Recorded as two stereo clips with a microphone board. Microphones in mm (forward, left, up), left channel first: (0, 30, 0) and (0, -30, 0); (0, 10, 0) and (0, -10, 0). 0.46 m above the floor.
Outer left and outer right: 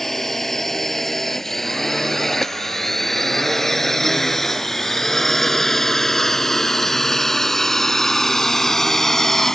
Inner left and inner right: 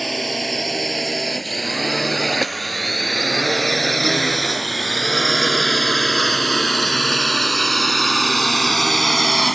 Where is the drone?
5° left (ahead or behind).